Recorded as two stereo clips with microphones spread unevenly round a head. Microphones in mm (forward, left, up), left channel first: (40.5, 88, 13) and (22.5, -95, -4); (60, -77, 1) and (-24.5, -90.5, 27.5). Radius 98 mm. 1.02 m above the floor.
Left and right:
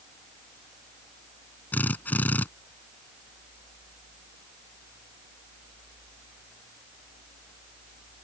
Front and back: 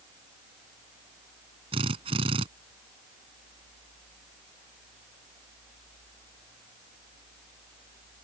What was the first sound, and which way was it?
A drill, 165° left.